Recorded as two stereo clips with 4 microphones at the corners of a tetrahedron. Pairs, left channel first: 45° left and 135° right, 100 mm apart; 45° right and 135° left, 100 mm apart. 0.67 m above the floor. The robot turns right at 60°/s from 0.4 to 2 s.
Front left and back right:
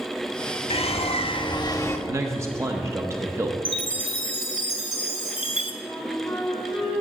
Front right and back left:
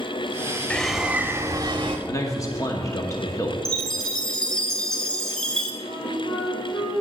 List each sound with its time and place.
0.7 s a bird: 30° left, 0.6 m; by 2.0 s 110° left, 0.6 m
2.1 s a man speaking: 85° right, 0.8 m
3.6 s a chime: 40° left, 1.4 m
5.8 s a flute: 45° right, 3 m